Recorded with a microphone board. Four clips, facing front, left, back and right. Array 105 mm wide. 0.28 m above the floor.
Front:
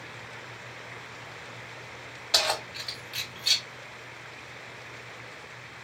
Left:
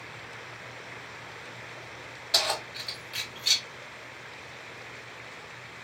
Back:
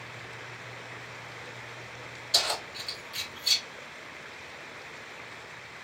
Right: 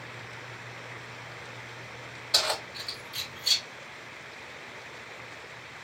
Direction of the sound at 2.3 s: 10° left.